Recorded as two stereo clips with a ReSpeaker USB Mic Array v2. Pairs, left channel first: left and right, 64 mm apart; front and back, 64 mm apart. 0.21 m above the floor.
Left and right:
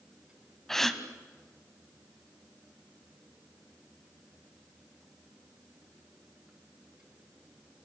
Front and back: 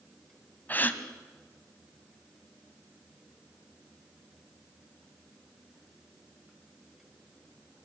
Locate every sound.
0.7 s a gasp: 10° left, 1.4 m